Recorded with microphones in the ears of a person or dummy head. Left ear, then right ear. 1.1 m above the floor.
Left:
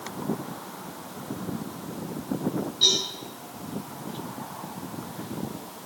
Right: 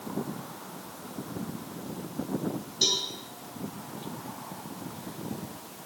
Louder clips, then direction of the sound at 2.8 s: Left 5 dB; 40° right (ahead or behind).